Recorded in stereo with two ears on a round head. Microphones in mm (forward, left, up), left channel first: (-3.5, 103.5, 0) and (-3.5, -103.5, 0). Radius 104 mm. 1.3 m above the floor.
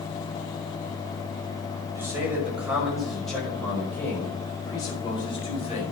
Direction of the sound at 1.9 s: 10° right (ahead or behind).